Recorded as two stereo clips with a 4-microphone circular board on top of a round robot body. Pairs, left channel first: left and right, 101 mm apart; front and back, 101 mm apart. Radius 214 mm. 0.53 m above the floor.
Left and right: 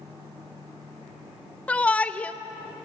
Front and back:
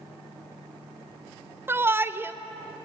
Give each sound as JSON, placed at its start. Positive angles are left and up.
{"t": 1.7, "sound": "a shout", "azimuth_deg": 150, "distance_m": 1.0}